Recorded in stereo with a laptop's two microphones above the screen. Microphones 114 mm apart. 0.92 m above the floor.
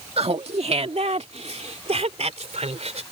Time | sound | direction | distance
0.2 | laughter | 65° right (ahead or behind) | ?